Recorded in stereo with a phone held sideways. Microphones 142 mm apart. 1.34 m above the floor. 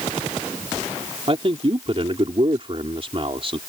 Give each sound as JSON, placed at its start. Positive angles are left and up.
{"t": 1.3, "sound": "a man speaking", "side_deg": -45}